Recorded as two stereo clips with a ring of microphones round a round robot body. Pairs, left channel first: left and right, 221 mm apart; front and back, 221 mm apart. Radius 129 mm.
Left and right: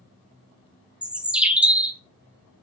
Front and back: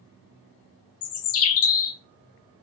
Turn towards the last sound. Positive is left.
turn(degrees=-5)